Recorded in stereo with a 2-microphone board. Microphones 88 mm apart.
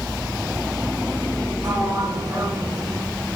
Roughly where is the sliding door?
Right.